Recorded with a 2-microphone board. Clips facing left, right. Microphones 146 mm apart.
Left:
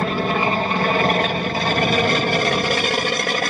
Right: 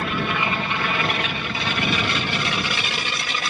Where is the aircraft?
40° left (ahead or behind); by 3.5 s 55° left (ahead or behind).